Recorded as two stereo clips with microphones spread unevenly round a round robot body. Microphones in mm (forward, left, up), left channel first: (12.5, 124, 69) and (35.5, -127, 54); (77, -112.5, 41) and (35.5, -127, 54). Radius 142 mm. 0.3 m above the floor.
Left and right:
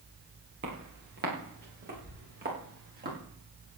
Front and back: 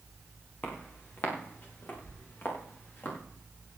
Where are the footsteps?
35° right, 7.5 m; by 3.2 s 30° right, 10 m.